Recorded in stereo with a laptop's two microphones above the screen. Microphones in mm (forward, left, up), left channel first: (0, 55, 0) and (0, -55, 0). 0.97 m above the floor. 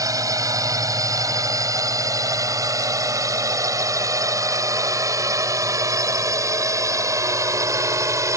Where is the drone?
30° right (ahead or behind).